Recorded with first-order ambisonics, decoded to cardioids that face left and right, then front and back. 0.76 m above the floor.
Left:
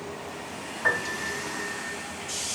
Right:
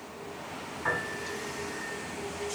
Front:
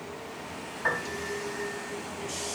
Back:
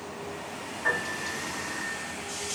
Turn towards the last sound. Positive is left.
turn(degrees=85)